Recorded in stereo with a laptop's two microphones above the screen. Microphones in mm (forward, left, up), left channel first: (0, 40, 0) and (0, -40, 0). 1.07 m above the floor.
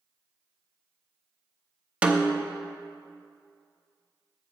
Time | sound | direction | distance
2.0 | a snare drum | 15° right (ahead or behind) | 0.8 m